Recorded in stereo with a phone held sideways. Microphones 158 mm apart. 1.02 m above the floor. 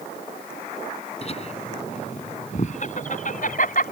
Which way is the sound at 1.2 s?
40° left (ahead or behind).